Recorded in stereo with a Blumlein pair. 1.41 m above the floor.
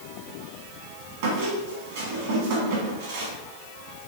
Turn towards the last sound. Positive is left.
turn(degrees=-55)